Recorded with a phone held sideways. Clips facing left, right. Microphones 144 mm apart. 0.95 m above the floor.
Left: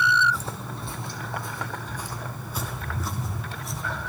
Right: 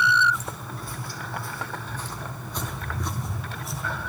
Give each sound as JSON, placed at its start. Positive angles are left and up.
{"t": 0.3, "sound": "footsteps", "side_deg": 30, "distance_m": 2.0}